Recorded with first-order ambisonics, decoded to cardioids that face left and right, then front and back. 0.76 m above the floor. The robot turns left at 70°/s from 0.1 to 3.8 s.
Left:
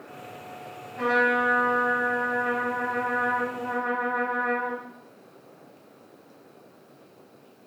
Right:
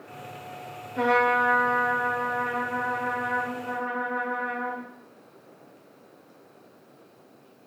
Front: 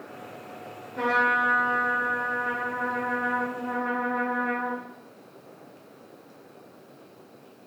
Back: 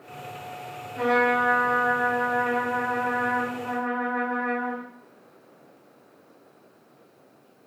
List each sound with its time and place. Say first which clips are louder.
1.0 s a trumpet: right 1 dB, back 1 dB; 85° right, 1.2 m; by 4.9 s 75° left, 1.2 m